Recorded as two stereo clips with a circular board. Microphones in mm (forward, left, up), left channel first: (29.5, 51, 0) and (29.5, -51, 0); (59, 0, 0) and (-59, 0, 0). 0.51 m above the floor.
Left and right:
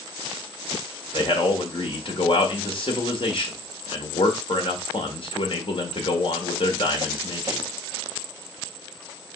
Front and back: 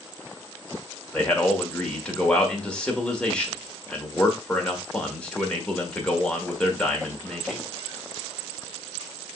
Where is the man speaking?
80° left, 1.3 m.